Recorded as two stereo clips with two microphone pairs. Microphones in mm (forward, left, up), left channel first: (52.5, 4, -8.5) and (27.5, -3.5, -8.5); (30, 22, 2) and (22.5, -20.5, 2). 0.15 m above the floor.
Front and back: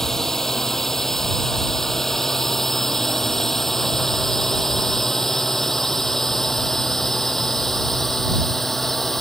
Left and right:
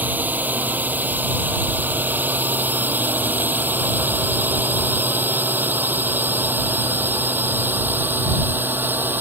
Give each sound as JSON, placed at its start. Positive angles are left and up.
{"t": 0.0, "sound": "a drone", "azimuth_deg": -55}